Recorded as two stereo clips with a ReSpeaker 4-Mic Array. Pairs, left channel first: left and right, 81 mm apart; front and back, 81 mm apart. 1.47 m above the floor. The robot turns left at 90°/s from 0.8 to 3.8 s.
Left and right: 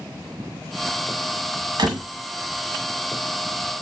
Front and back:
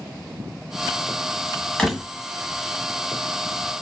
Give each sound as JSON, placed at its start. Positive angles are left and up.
{"t": 1.8, "sound": "a door slam", "azimuth_deg": -75, "distance_m": 1.4}